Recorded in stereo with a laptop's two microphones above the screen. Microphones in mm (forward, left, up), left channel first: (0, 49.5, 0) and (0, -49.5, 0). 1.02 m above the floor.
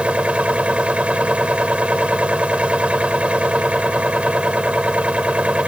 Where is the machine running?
10° right (ahead or behind).